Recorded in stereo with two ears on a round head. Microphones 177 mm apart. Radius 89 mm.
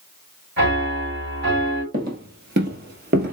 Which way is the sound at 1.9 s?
50° right (ahead or behind).